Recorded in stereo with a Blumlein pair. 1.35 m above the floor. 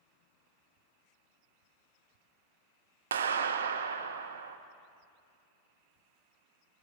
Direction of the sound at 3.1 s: 65° right.